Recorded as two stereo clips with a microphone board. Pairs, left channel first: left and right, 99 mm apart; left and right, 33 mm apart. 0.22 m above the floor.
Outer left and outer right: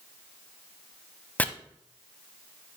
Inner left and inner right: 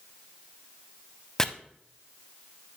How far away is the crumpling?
I don't hear crumpling.